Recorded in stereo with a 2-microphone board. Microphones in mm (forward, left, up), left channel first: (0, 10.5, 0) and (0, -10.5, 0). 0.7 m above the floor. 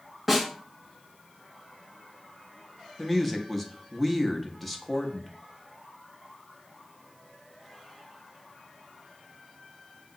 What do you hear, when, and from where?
0.3 s a snare drum: 10° left (ahead or behind), 1.3 m
3.0 s a woman speaking: 10° left (ahead or behind), 0.6 m